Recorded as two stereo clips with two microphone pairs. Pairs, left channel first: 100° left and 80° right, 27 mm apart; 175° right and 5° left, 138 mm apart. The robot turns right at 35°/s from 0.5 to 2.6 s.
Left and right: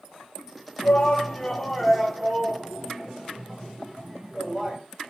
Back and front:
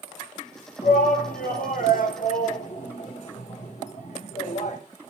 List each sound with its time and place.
0.8 s a shout: 150° left, 1.2 m; by 4.8 s 145° right, 1.2 m